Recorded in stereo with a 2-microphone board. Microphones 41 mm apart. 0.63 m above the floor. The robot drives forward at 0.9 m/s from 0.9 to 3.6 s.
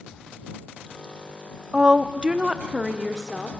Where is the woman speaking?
20° right (ahead or behind), 0.6 m; by 3.5 s 10° right (ahead or behind), 1.4 m.